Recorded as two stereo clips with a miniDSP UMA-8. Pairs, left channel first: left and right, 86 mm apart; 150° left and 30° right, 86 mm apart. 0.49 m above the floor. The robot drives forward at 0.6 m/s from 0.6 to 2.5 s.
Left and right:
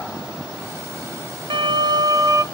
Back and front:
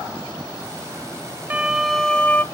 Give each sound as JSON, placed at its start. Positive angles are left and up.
{"t": 1.5, "sound": "a violin", "azimuth_deg": -100, "distance_m": 0.6}